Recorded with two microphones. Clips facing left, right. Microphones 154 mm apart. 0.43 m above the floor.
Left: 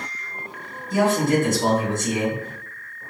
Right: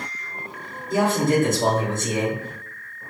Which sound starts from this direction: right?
A man speaking, at 0.9 s.